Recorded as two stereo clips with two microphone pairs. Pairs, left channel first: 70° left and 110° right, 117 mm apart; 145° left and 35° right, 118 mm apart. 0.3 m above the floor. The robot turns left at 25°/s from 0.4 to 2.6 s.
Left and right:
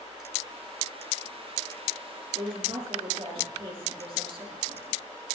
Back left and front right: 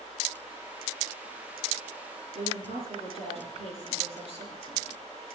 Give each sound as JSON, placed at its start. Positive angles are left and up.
{"t": 2.4, "sound": "a woman speaking", "azimuth_deg": -65, "distance_m": 5.5}